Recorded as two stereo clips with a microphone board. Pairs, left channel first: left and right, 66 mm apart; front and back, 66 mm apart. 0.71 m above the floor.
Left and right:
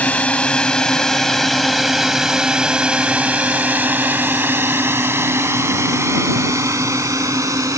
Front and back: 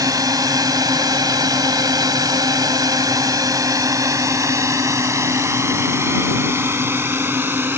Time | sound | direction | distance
0.0 | a drone | 160° left | ?